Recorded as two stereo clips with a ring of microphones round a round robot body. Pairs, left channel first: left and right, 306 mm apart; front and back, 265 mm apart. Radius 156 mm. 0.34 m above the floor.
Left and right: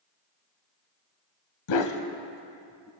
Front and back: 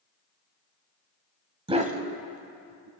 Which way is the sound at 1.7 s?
110° left.